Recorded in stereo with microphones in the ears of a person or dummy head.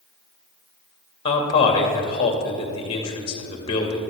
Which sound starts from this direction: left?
A man speaking, at 1.2 s.